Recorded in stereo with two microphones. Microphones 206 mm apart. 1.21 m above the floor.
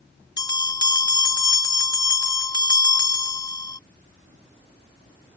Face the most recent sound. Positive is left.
turn(degrees=20)  # may be behind; listen again after turning